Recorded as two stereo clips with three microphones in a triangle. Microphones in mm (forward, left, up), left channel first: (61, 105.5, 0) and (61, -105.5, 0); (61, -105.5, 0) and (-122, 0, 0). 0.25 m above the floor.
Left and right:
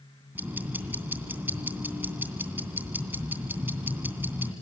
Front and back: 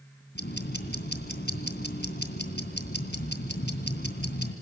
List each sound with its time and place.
0.3 s ticking: 10° right, 2.5 m